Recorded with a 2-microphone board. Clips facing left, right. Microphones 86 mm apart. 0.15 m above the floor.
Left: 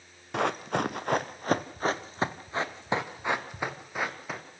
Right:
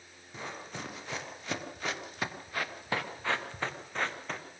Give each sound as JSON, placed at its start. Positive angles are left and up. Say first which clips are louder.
{"t": 0.3, "sound": "running footsteps", "louder": "left 14 dB", "side_deg": 75, "distance_m": 1.4}